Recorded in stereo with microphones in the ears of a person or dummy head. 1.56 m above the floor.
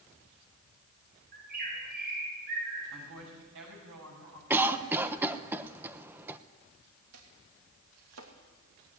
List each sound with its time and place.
1.3 s a bird: 50° right (ahead or behind), 8 m
2.9 s a woman speaking: 75° right (ahead or behind), 8 m
4.5 s a cough: 10° right (ahead or behind), 1.1 m
7.1 s chopping: 80° right, 3 m